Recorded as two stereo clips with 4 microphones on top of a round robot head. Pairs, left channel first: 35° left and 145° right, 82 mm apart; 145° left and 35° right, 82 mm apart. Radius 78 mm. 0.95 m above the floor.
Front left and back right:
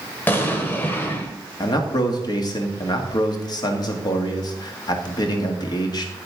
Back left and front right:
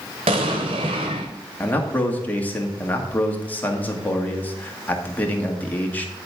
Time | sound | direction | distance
0.3 | an explosion | 30° right | 0.9 m
1.6 | a man speaking | 75° left | 1.8 m